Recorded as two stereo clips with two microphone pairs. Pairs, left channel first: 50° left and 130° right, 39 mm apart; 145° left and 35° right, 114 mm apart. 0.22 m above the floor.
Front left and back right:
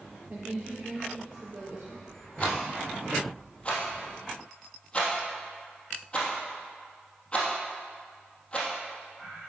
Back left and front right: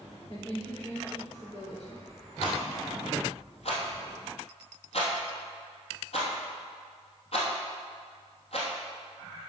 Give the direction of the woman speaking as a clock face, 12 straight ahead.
6 o'clock.